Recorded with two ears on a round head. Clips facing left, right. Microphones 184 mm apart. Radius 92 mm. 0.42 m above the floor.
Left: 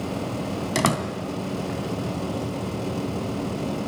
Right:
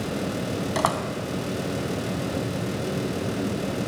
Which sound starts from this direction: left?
A door slam, at 0.8 s.